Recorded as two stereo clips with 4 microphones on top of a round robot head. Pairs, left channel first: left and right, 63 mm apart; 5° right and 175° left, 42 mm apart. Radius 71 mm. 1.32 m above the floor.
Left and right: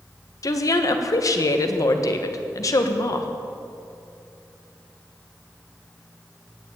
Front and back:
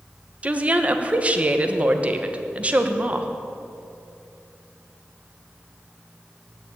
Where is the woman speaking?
120° left, 1.4 m.